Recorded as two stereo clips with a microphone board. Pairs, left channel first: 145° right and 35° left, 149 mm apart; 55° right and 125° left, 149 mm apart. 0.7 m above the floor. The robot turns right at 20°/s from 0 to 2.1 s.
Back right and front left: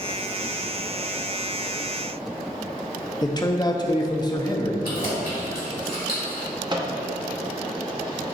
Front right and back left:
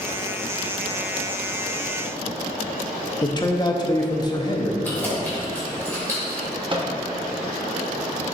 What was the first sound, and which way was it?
A man speaking, 100° right.